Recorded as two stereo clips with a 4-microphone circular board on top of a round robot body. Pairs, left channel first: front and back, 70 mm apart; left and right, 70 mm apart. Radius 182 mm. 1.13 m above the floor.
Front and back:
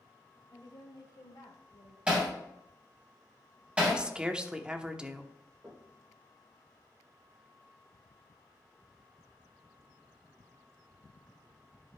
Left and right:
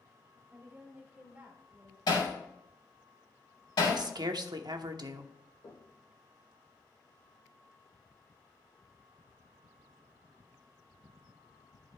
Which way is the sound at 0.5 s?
25° right.